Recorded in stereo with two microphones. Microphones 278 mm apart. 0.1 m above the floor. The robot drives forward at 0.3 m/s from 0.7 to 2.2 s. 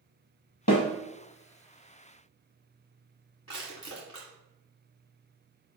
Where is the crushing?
55° left (ahead or behind), 1.8 m.